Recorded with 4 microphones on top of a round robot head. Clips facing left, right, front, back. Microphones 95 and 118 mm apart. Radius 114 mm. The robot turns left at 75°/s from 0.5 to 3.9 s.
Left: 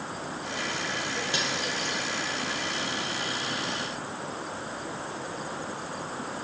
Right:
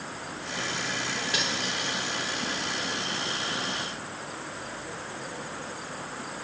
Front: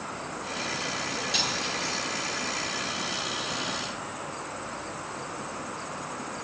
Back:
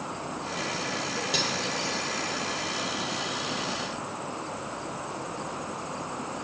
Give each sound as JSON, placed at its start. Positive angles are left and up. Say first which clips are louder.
{"t": 1.3, "sound": "cutlery clinking", "louder": "left 1 dB, back 2 dB", "azimuth_deg": 150, "distance_m": 7.0}